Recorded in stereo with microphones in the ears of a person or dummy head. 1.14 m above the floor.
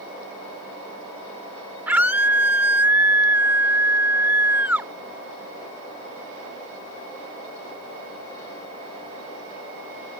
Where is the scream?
10° right (ahead or behind).